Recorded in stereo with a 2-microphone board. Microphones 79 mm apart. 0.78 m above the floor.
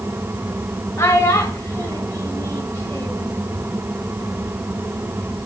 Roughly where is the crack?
No crack in this recording.